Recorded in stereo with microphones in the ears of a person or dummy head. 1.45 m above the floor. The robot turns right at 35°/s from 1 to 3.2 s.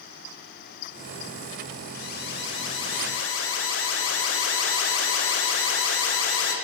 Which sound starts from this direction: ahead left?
An alarm, at 1.9 s.